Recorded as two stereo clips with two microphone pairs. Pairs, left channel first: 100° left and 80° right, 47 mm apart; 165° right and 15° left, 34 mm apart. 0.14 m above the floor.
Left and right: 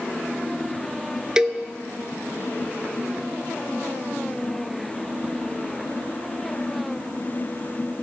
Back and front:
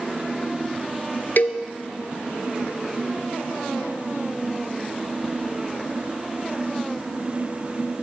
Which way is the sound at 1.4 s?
150° right.